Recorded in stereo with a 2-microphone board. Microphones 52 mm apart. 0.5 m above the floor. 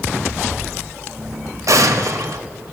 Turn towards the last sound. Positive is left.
turn(degrees=-75)  # may be behind; listen again after turning